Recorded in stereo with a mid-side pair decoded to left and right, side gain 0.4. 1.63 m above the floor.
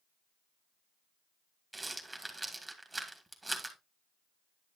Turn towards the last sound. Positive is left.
turn(degrees=-20)